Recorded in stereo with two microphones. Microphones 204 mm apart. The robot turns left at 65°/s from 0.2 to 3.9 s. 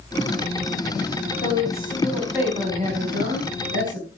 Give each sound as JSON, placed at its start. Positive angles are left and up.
{"t": 1.4, "sound": "a woman speaking", "azimuth_deg": 55, "distance_m": 4.5}